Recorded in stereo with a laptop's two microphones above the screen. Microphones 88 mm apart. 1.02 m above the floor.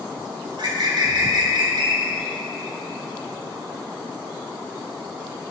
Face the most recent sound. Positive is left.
turn(degrees=-60)  # may be behind; listen again after turning